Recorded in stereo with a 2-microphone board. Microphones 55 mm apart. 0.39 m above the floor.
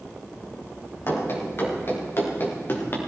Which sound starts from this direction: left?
Running footsteps, at 1.1 s.